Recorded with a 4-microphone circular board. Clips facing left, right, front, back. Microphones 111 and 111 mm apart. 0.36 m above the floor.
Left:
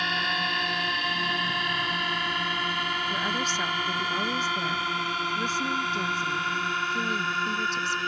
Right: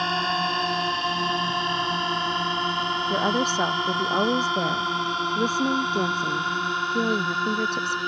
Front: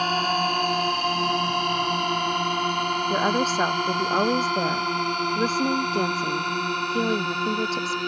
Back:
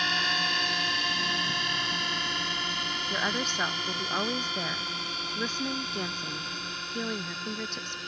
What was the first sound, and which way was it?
A drone, 40° right.